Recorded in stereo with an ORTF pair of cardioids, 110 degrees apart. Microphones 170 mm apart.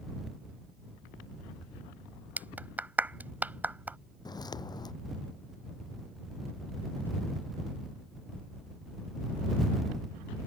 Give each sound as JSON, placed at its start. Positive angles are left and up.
{"t": 2.4, "sound": "a clap", "azimuth_deg": -10}
{"t": 4.2, "sound": "footsteps", "azimuth_deg": 25}